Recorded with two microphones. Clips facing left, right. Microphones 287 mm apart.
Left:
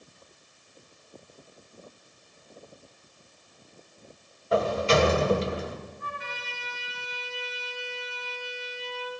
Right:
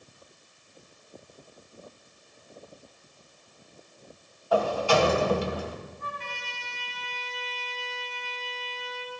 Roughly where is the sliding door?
Left.